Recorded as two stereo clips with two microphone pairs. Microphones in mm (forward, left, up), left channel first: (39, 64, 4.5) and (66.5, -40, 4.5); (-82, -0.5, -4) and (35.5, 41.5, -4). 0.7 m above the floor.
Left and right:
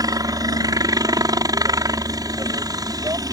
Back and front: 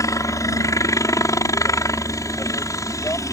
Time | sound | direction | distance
0.0 | a helicopter | 110° right | ?